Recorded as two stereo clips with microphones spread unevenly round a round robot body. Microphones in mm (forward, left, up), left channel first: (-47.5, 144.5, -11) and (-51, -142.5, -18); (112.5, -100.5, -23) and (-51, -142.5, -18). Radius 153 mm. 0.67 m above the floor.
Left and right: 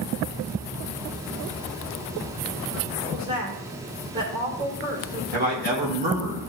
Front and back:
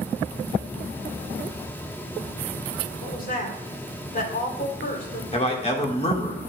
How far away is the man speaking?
About 2.0 m.